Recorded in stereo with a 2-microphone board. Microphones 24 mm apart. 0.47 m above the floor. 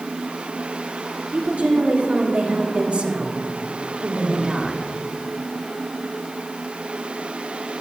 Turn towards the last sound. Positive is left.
turn(degrees=-25)  # may be behind; listen again after turning